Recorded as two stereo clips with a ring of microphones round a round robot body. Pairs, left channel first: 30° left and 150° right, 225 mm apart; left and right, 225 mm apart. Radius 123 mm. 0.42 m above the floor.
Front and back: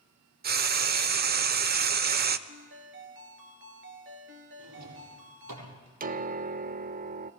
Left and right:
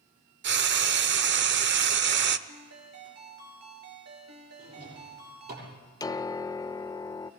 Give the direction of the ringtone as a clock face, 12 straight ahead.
4 o'clock.